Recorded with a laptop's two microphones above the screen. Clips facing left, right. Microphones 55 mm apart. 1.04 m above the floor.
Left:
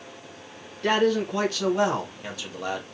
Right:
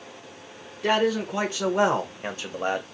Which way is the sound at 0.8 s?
10° right (ahead or behind).